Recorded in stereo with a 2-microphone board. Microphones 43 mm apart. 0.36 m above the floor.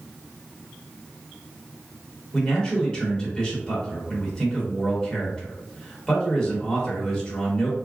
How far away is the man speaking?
About 1.1 m.